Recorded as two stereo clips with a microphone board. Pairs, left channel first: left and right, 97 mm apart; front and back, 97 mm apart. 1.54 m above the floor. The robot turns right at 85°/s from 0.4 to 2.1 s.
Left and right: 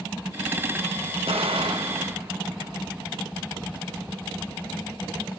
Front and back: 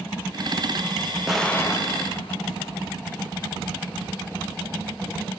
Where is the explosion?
95° right, 0.8 m; by 2.9 s 25° right, 0.8 m.